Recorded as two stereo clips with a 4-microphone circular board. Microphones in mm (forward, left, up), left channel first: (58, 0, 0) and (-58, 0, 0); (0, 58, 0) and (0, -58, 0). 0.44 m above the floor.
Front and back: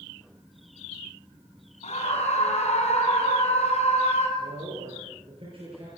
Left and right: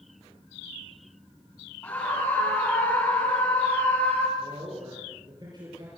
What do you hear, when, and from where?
1.8 s a scream: 20° left, 4 m
4.4 s a man speaking: 140° right, 8 m